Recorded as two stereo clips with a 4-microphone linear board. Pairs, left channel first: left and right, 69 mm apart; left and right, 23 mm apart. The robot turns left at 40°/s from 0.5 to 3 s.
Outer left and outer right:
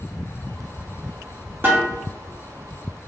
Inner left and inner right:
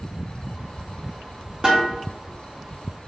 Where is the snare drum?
35° right (ahead or behind), 1.2 m; by 1.9 s 30° right (ahead or behind), 1.2 m.